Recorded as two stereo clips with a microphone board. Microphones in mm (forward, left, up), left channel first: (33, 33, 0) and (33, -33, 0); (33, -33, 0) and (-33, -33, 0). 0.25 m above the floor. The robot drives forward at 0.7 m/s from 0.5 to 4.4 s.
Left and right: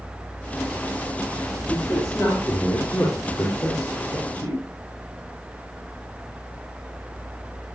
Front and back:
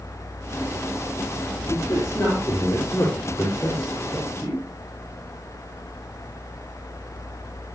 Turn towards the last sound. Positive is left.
turn(degrees=55)